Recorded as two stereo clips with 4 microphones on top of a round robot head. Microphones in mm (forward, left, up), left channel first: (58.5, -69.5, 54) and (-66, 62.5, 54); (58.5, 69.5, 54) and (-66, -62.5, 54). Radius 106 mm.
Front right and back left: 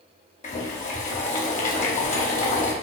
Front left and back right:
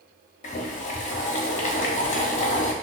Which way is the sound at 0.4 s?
Straight ahead.